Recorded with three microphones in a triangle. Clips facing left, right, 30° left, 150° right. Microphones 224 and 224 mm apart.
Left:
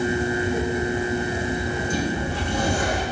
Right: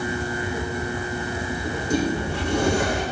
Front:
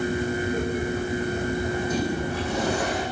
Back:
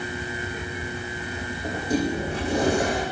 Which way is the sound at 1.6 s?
90° right.